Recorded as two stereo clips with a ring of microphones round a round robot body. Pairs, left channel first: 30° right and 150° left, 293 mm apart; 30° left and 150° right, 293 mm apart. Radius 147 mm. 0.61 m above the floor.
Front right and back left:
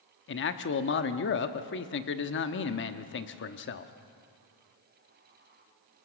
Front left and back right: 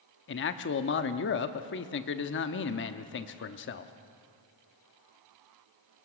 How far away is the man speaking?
About 0.9 m.